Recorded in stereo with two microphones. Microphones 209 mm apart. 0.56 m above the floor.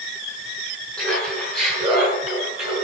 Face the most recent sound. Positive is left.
turn(degrees=-5)  # may be behind; listen again after turning